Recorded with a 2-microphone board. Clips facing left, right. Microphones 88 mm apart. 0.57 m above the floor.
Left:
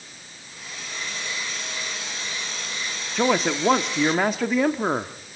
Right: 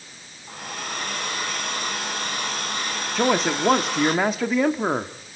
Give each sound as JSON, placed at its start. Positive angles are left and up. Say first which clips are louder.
{"t": 0.5, "sound": "a hair dryer", "louder": "right 7 dB", "side_deg": -55, "distance_m": 4.0}
{"t": 3.1, "sound": "a man speaking", "louder": "even", "side_deg": 0, "distance_m": 0.8}